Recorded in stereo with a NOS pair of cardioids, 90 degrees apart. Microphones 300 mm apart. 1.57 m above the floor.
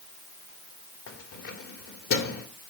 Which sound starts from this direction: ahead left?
Keys jangling, at 1.1 s.